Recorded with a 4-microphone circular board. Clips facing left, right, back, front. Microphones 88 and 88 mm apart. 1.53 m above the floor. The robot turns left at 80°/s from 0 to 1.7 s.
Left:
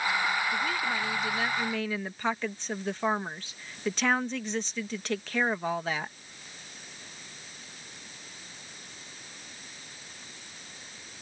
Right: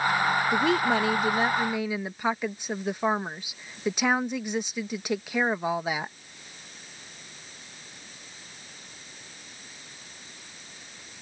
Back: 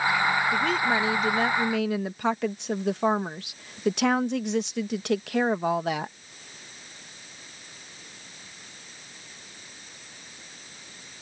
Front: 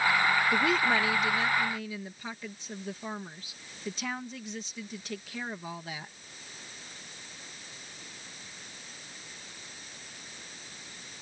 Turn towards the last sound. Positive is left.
turn(degrees=-165)